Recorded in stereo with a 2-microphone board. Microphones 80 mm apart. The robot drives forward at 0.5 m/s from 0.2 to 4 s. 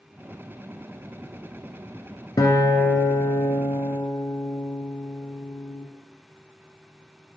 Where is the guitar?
50° left (ahead or behind), 1.3 m; by 5.9 s 35° left (ahead or behind), 1.8 m.